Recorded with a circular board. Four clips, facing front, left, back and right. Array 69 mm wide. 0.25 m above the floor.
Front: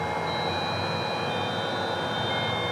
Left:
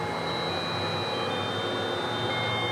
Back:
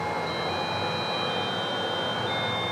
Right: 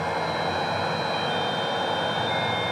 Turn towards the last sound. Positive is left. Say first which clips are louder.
# right 4 dB, front 1 dB
turn(degrees=-95)